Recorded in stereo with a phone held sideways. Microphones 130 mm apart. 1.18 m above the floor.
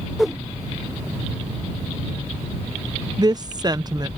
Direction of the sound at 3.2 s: 30° right (ahead or behind).